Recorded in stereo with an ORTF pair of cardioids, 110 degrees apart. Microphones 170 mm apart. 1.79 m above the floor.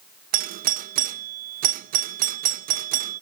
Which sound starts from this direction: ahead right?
A doorbell, at 0.3 s.